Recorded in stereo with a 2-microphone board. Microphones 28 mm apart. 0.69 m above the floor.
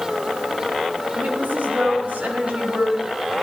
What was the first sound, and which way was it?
A woman speaking, 65° right (ahead or behind).